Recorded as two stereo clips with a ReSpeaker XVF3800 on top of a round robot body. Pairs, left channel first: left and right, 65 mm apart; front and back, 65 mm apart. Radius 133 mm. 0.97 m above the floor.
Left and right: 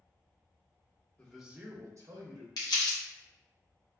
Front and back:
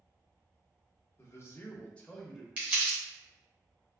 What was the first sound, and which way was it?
A man speaking, 20° left.